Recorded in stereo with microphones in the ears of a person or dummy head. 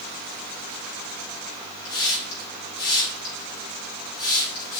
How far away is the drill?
I don't hear a drill.